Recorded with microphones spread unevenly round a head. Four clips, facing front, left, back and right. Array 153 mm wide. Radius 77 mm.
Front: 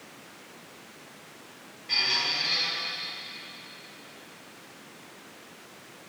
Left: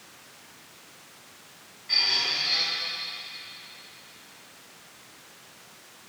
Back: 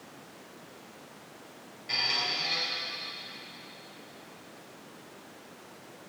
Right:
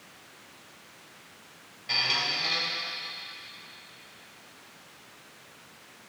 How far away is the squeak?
About 2.5 m.